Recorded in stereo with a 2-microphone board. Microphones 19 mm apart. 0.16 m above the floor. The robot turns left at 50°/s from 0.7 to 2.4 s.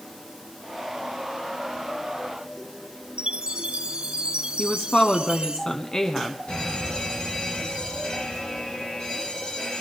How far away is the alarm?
About 8 m.